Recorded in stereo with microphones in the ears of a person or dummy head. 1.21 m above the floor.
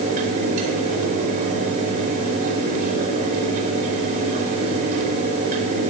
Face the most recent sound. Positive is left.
turn(degrees=-40)  # may be behind; listen again after turning